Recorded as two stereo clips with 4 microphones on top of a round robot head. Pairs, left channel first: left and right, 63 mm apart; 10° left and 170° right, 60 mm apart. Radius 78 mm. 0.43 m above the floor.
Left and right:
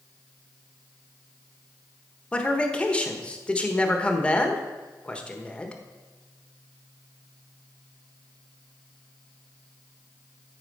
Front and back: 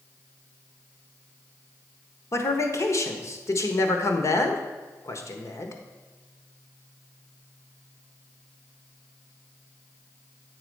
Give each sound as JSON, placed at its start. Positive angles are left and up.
{"t": 2.3, "sound": "a man speaking", "azimuth_deg": 20, "distance_m": 1.3}